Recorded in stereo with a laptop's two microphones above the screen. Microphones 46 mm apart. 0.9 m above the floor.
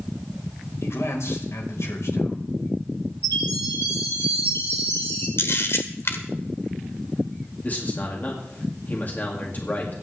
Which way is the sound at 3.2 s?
60° left (ahead or behind).